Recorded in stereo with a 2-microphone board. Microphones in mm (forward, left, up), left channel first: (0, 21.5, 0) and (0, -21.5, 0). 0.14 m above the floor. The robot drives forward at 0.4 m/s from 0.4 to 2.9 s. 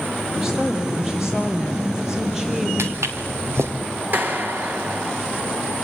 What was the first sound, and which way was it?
A woman speaking, 10° right (ahead or behind).